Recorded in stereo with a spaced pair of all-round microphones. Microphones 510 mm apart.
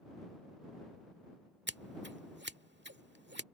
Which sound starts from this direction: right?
Scissors, at 1.7 s.